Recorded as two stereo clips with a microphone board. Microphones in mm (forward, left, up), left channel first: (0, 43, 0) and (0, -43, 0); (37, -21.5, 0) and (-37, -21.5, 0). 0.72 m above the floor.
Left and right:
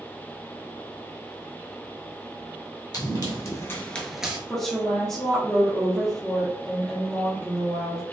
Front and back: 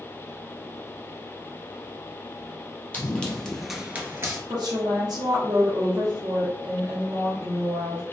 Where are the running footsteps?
65° left, 1.2 m; by 4.4 s 160° right, 0.9 m.